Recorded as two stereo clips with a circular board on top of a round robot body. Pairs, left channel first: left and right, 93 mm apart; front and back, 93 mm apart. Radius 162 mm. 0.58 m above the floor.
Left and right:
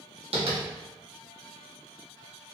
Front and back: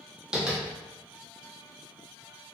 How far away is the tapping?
About 1.3 m.